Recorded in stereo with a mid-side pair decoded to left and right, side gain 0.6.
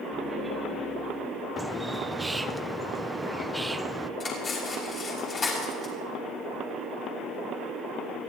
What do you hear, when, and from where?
0.1 s laughter: 5° left, 3 m
1.6 s a bird: 10° right, 0.5 m
4.2 s cutlery clinking: 35° left, 5.5 m